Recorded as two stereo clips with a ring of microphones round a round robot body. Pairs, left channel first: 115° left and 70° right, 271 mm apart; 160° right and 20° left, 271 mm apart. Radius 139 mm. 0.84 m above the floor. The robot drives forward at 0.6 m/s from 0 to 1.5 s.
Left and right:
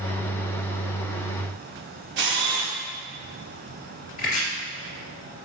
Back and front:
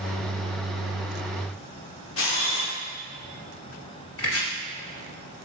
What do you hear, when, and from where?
2.2 s a camera shutter: 115° right, 0.8 m
4.2 s chopping: 170° left, 1.1 m